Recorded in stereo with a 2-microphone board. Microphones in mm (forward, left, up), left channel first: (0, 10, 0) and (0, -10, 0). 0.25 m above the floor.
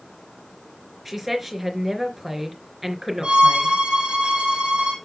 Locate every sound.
1.1 s a woman speaking: 10° right (ahead or behind), 3.5 m
3.2 s a violin: 70° right (ahead or behind), 4.5 m